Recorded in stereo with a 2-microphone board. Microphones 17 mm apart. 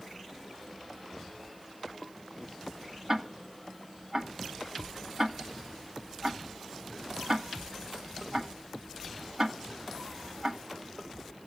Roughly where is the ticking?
Right.